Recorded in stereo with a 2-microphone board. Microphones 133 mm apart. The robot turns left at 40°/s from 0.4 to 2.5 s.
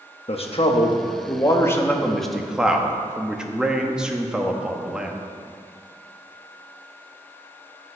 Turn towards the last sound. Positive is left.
turn(degrees=-5)